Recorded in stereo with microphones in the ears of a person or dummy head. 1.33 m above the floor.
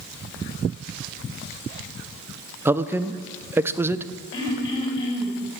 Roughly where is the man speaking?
Centre.